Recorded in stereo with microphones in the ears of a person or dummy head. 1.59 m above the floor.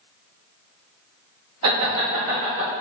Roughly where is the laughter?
Right.